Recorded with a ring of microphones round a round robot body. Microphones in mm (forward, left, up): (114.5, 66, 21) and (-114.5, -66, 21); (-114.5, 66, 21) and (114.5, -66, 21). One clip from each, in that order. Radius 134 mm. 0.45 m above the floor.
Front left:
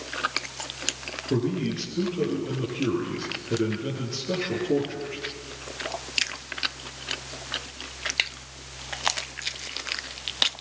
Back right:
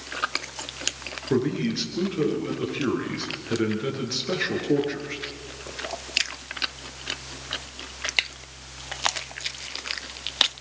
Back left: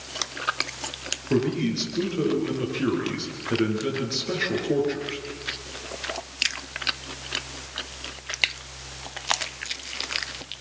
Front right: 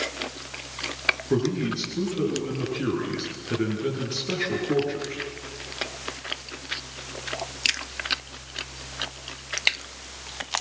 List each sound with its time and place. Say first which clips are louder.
1.3 s a man speaking: back right 3 dB, back left 1 dB; 125° right, 9 m